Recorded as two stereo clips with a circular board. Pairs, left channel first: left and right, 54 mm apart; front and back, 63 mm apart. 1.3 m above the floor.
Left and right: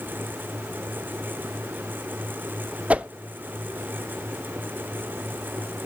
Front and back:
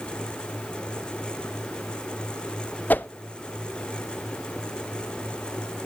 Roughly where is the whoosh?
Ahead right.